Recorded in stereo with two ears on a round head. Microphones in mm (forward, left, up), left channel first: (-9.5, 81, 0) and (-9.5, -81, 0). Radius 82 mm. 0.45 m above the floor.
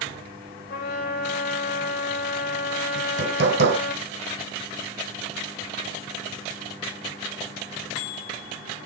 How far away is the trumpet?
About 2.5 m.